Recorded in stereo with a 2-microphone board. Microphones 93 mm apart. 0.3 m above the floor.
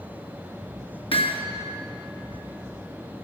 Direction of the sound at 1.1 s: 75° left (ahead or behind).